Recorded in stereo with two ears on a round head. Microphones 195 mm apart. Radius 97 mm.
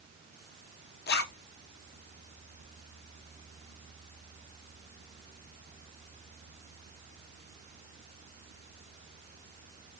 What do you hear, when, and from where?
1.1 s a zipper: 50° left (ahead or behind), 0.9 m